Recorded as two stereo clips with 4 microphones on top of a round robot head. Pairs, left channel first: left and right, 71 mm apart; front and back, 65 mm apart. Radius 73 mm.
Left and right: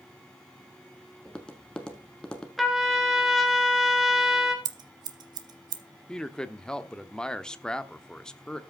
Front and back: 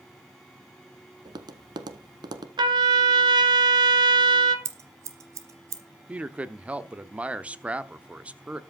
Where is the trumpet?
Straight behind, 1.4 m.